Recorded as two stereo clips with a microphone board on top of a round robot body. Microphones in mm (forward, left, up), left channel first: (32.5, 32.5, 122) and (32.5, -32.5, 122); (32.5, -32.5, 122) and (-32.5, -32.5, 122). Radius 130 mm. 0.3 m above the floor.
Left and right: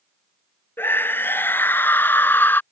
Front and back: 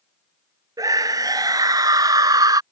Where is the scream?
150° left.